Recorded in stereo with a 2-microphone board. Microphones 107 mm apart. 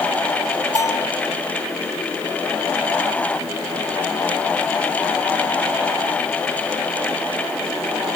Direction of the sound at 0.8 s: 30° left (ahead or behind).